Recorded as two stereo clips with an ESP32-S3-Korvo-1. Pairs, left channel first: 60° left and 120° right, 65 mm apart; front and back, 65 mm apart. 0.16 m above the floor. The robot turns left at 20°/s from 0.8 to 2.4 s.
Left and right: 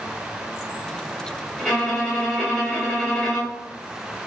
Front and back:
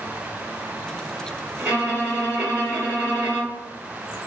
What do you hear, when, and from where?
1.6 s a violin: 150° left, 2.0 m; by 3.7 s 135° left, 2.0 m